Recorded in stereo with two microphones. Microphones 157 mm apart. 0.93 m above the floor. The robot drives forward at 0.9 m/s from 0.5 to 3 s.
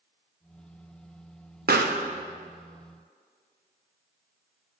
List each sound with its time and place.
1.7 s a pop: 80° right, 0.6 m; by 2.0 s 75° right (ahead or behind), 0.6 m